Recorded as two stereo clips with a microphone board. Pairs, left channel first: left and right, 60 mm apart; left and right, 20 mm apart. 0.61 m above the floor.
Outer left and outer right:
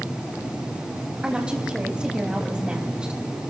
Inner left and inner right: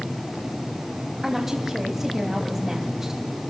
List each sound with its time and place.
1.2 s a woman speaking: 20° right (ahead or behind), 3.5 m